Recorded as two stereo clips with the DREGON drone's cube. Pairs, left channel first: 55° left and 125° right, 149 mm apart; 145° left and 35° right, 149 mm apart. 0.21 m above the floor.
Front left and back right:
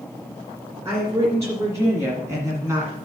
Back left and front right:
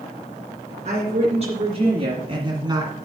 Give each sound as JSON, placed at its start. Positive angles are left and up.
{"t": 0.8, "sound": "a woman speaking", "azimuth_deg": -55, "distance_m": 2.5}